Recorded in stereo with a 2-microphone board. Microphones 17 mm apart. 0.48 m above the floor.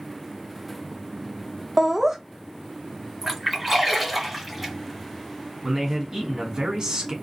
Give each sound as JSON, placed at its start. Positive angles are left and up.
{"t": 1.8, "sound": "laughter", "side_deg": -20, "distance_m": 0.8}
{"t": 3.2, "sound": "a splash", "side_deg": -5, "distance_m": 1.6}
{"t": 5.6, "sound": "a man speaking", "side_deg": -45, "distance_m": 1.4}